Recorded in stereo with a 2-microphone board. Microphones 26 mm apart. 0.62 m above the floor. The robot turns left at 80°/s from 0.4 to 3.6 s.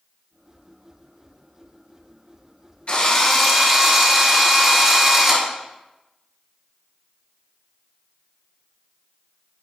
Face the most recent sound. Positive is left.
turn(degrees=-10)